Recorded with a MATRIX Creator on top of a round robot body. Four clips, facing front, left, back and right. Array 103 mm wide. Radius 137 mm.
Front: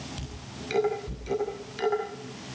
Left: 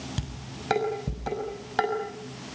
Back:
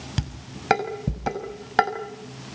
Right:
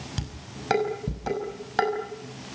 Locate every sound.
0.2 s dishes clattering: 175° right, 6 m